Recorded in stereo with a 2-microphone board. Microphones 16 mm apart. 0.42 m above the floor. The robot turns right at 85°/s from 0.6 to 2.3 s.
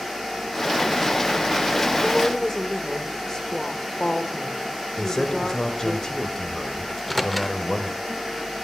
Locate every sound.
2.0 s a woman speaking: 20° left (ahead or behind), 1.1 m; by 6.0 s 30° left (ahead or behind), 1.1 m
5.0 s a man speaking: 30° left (ahead or behind), 1.2 m
6.9 s a microwave: 5° left (ahead or behind), 0.7 m